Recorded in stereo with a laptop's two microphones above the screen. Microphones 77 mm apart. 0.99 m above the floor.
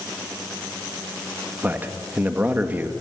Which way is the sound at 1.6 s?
25° right (ahead or behind).